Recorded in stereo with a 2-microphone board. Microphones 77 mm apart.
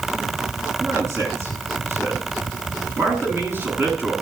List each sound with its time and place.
0.8 s a man speaking: 35° right (ahead or behind), 9.5 m; by 4.1 s 25° right (ahead or behind), 8.5 m